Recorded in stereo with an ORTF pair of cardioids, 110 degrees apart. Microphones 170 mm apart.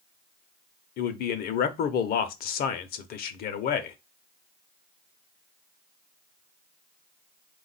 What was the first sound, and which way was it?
A man speaking, 65° left.